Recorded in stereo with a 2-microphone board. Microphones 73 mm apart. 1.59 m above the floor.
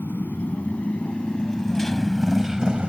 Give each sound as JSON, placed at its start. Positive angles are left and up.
{"t": 0.0, "sound": "a motorcycle", "side_deg": 25}